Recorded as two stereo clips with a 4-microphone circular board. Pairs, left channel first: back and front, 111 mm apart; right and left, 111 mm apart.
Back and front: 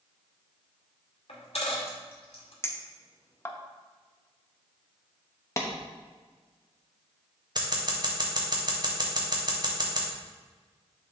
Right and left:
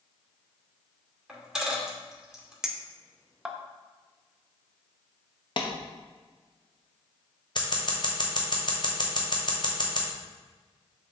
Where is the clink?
165° left, 0.7 m.